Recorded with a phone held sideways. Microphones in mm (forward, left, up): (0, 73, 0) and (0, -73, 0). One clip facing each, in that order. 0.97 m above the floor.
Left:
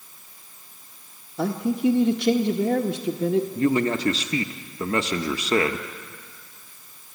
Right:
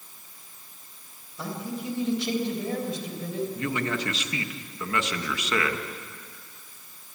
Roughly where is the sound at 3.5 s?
Left.